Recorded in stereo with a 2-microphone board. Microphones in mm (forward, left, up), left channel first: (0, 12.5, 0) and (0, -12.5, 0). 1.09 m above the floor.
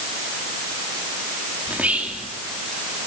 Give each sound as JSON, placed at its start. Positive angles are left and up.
{"t": 1.7, "sound": "whispering", "side_deg": -70, "distance_m": 3.0}